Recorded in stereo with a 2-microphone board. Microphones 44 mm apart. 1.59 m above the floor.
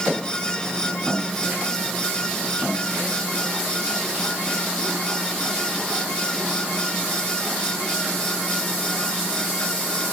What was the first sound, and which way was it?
Only background noise.